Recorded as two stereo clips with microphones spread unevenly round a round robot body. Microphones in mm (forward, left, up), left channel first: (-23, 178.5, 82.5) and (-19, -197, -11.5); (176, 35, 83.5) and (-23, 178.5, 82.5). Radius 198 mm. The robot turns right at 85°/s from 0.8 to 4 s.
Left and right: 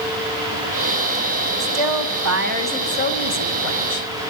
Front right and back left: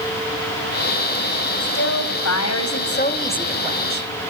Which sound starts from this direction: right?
A woman speaking, at 1.6 s.